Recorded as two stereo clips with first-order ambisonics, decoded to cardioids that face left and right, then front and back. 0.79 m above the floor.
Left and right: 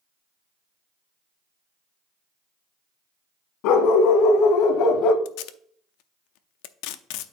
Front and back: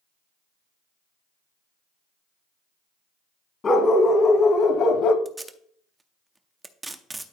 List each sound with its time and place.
3.6 s a dog barking: 70° left, 1.5 m; by 5.2 s 45° left, 0.8 m
5.2 s tape being pulled: 100° left, 0.6 m